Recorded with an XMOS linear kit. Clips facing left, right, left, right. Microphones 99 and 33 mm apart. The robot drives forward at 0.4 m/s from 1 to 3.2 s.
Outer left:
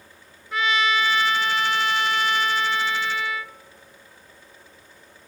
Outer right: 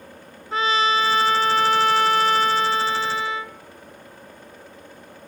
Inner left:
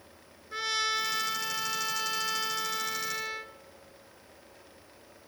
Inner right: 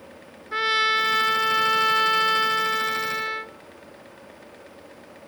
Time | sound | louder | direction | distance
0.5 | a trumpet | outer right 2 dB, inner right 9 dB | 35° right (ahead or behind) | 0.6 m